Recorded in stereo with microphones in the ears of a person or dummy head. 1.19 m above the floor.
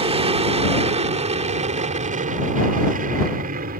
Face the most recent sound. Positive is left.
turn(degrees=-45)  # may be behind; listen again after turning